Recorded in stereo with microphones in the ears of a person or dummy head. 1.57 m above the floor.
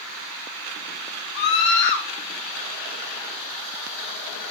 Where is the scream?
55° left (ahead or behind), 4 m.